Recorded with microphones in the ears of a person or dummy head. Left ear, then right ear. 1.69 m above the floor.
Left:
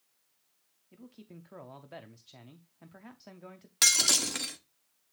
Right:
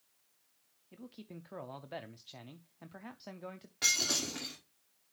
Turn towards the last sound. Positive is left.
turn(degrees=60)  # may be behind; listen again after turning